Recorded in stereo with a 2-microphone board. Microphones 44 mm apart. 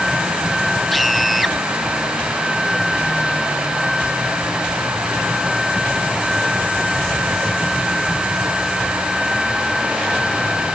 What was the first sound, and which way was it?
A scream, 5° left (ahead or behind).